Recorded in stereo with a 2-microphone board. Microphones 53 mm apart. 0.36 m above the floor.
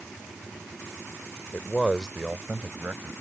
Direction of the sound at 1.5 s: 20° left (ahead or behind).